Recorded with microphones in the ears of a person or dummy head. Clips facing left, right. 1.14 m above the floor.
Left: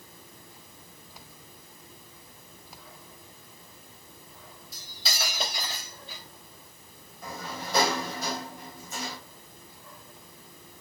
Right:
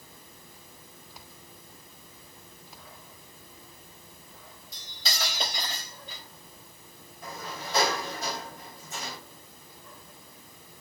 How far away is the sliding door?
About 4 m.